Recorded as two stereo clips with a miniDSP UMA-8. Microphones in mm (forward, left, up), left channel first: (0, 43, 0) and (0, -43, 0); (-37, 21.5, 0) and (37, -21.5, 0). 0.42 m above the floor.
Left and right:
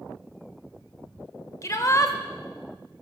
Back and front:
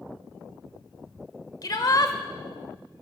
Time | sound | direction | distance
1.6 | a shout | 130° left | 1.2 m